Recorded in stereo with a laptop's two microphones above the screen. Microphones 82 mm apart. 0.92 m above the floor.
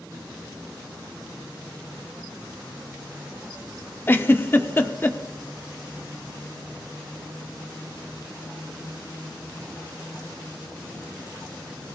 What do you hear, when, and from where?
4.1 s a giggle: 25° left (ahead or behind), 1.0 m